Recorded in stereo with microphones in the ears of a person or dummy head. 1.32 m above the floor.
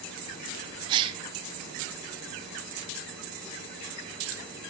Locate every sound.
0.9 s a gasp: 25° right (ahead or behind), 0.5 m